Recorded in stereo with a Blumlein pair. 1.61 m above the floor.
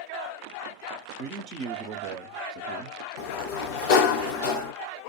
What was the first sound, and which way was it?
A man speaking, 40° right.